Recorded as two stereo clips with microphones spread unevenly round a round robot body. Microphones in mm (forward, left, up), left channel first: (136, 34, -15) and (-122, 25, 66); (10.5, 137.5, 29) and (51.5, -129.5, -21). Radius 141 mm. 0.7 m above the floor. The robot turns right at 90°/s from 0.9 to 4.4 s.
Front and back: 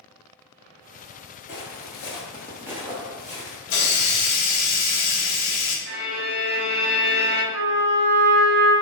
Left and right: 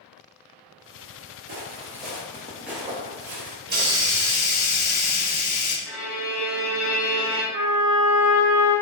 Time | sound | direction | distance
1.5 | footsteps | 50° right | 0.9 m
3.7 | a hiss | 25° right | 0.8 m
5.9 | a violin | 160° right | 0.6 m
7.5 | a trumpet | 150° right | 0.6 m